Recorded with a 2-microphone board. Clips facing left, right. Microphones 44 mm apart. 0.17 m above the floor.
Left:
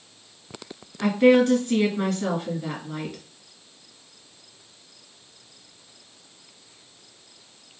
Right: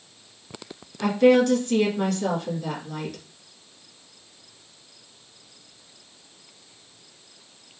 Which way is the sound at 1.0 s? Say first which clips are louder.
Even; 25° left (ahead or behind).